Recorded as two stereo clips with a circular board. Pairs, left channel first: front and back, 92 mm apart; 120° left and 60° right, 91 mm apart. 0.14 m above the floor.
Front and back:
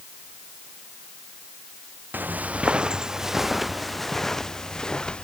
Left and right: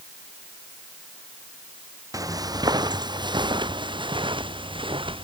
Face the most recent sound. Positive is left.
turn(degrees=-80)